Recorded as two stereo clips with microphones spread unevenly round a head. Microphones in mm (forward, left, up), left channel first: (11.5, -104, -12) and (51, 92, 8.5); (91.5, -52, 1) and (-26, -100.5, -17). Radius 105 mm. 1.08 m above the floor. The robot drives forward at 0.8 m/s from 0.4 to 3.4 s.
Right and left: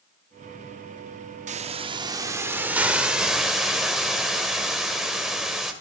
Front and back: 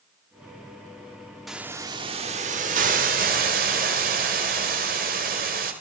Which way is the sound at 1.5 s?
105° left.